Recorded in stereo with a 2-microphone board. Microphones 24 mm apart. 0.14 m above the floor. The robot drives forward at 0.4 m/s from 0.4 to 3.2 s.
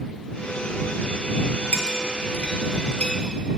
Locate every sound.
1.7 s a clink: 60° left (ahead or behind), 1.4 m; by 3.1 s 45° left (ahead or behind), 1.7 m